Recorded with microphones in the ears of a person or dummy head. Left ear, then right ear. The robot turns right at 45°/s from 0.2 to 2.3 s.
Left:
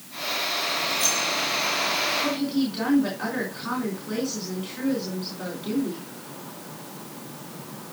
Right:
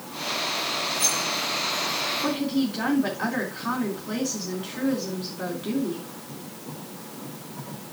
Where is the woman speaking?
20° right (ahead or behind), 3.5 m; by 6.1 s 25° right (ahead or behind), 3.5 m.